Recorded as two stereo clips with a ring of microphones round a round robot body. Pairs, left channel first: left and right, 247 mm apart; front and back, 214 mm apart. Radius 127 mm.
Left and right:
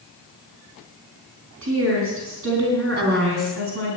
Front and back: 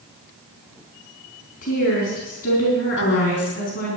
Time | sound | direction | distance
1.6 | a woman speaking | 55° right | 4 m
3.0 | a woman speaking | 40° right | 3 m